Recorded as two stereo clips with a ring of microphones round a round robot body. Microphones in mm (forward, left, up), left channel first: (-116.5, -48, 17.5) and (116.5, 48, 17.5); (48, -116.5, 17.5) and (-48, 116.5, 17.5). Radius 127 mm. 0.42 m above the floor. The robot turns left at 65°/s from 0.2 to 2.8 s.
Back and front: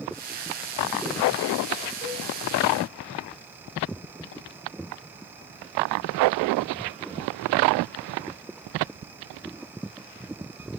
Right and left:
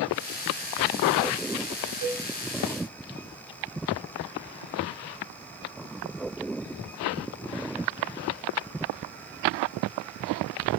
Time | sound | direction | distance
2.0 | a cowbell | 130° left | 2.5 m